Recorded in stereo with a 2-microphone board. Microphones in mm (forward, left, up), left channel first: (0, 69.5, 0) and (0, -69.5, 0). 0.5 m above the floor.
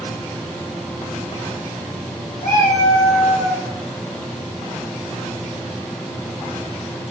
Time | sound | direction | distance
2.4 | a cat meowing | 70° left (ahead or behind) | 1.1 m